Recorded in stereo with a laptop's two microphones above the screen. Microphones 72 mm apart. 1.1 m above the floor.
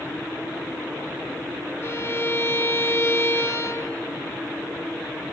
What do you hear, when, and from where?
1.8 s a violin: 35° left (ahead or behind), 1.7 m